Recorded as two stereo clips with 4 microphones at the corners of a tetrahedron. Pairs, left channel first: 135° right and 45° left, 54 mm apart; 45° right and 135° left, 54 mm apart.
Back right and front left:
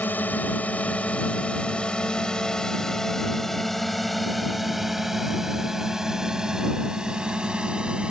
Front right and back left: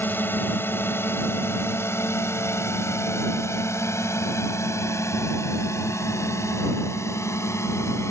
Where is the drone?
85° right; by 8.1 s 25° right.